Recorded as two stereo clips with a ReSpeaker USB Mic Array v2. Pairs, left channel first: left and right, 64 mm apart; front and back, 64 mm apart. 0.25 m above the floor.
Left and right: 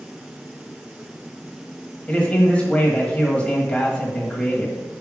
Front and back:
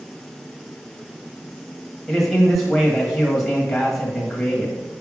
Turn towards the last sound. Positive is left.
turn(degrees=80)